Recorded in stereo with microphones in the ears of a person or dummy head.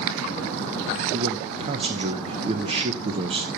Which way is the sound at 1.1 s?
30° right (ahead or behind).